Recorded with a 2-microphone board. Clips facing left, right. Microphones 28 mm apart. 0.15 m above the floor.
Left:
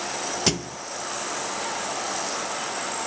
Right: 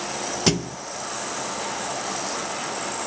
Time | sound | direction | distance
0.5 | a thud | 5° right (ahead or behind) | 0.5 m